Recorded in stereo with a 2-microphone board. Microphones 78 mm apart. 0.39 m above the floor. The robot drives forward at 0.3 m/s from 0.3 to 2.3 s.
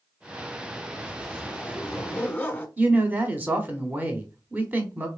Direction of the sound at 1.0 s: 15° left (ahead or behind).